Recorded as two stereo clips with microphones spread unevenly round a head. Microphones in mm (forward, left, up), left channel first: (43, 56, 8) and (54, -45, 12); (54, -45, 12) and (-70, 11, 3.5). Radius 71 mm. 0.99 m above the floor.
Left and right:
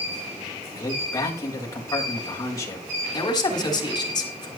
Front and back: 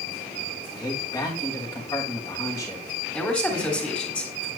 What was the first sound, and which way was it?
A man speaking, 40° left.